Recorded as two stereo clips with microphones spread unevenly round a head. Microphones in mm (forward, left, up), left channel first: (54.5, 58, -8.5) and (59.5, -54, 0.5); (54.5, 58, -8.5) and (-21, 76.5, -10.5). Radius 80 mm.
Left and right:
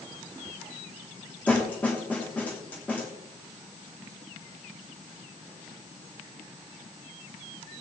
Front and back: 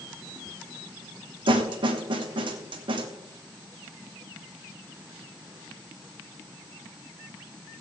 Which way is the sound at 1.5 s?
170° left.